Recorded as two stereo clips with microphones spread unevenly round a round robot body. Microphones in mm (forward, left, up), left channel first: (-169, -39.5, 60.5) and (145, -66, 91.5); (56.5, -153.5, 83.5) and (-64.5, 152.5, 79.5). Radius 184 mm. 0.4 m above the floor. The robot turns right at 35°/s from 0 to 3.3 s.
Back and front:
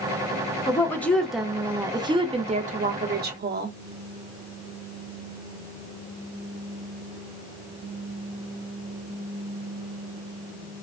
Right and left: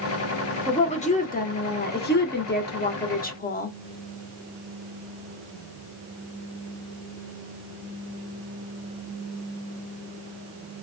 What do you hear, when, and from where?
0.7 s a woman speaking: 130° right, 0.9 m; by 3.7 s 35° right, 0.9 m